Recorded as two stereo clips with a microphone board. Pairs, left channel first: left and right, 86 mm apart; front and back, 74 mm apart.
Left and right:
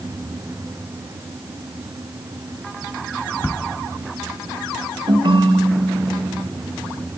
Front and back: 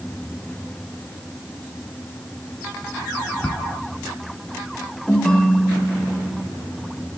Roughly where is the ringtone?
Right.